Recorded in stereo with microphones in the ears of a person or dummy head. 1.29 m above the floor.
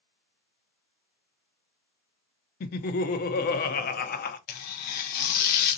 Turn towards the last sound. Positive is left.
turn(degrees=50)  # may be behind; listen again after turning